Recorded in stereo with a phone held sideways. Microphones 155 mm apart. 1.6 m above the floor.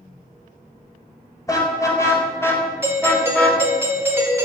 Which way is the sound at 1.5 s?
20° left (ahead or behind).